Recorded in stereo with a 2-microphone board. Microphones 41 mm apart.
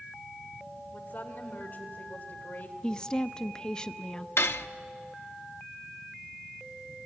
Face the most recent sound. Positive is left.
turn(degrees=85)